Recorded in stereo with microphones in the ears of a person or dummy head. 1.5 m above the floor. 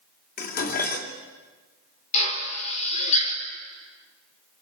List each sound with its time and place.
0.4 s dishes clattering: 50° left (ahead or behind), 2.5 m
2.1 s a drill: 35° left (ahead or behind), 4.5 m